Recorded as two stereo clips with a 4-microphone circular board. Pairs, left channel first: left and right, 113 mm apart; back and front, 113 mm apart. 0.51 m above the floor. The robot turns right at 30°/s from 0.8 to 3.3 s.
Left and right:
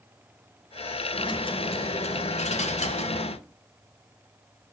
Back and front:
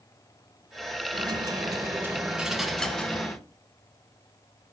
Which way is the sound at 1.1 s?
45° left.